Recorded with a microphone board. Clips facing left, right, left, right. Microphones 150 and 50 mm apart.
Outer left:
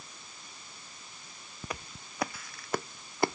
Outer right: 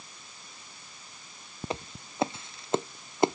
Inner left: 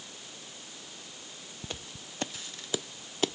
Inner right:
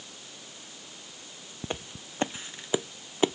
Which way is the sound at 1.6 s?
25° right (ahead or behind).